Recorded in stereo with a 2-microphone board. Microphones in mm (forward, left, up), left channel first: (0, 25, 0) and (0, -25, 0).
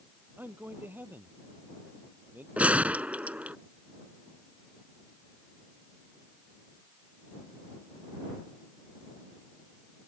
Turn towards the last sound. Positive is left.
turn(degrees=-30)  # may be behind; listen again after turning